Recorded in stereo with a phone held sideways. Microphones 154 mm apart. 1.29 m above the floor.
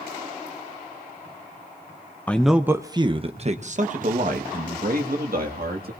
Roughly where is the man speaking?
Centre.